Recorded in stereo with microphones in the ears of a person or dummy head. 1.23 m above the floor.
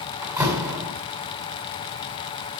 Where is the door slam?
15° right (ahead or behind), 6 m.